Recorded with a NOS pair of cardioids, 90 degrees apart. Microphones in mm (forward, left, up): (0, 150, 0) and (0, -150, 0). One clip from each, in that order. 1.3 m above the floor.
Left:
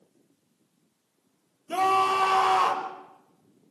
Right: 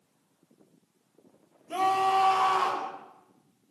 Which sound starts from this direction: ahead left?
A scream, at 1.7 s.